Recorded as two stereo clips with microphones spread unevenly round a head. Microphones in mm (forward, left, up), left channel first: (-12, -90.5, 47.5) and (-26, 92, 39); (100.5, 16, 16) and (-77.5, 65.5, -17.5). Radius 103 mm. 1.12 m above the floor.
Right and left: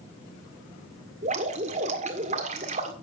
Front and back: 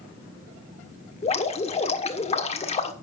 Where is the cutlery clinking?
I don't hear cutlery clinking.